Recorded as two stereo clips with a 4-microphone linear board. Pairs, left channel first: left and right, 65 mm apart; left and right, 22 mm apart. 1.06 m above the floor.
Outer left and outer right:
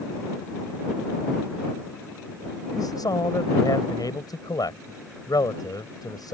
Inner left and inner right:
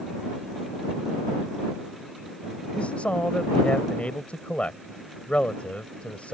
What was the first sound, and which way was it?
A man speaking, 80° left.